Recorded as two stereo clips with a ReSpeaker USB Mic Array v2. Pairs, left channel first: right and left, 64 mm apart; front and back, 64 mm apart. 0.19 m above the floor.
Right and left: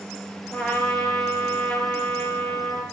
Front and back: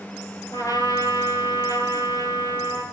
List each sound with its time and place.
0.5 s a trumpet: 10° right, 4.5 m